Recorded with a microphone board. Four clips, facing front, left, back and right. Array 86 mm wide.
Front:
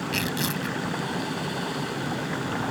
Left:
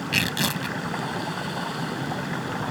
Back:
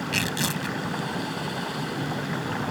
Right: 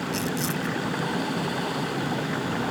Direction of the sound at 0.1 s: 100° left.